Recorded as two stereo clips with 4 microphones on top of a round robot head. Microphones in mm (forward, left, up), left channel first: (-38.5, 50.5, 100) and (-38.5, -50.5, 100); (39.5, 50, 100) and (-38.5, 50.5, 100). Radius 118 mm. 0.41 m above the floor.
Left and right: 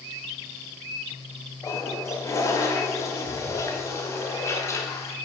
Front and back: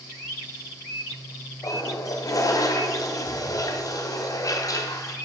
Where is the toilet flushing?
30° left, 1.6 m.